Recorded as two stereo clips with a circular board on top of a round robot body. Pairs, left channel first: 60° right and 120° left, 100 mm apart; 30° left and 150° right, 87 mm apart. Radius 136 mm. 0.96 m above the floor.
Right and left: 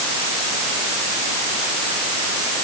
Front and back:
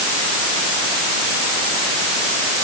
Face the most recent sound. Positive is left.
No sound to turn to.